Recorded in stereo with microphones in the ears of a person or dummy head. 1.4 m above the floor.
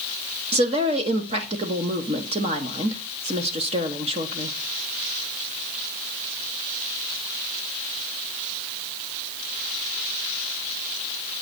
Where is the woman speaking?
30° right (ahead or behind), 0.9 m.